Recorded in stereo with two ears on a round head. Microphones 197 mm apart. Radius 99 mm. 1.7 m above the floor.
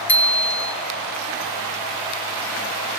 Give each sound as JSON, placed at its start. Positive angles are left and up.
{"t": 0.1, "sound": "a bicycle bell", "side_deg": 10, "distance_m": 3.0}